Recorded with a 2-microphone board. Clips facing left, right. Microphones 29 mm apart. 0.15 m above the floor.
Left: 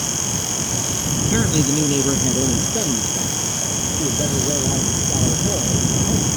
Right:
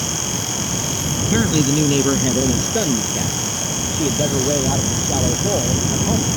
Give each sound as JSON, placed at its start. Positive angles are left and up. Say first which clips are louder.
{"t": 1.2, "sound": "a man speaking", "louder": "right 2 dB", "side_deg": 0}